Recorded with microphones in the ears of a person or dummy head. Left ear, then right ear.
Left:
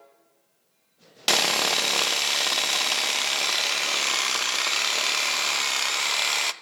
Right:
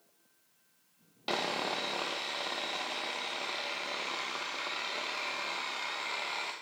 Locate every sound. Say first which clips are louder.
1.3 s sawing: left 11 dB; 65° left (ahead or behind), 0.6 m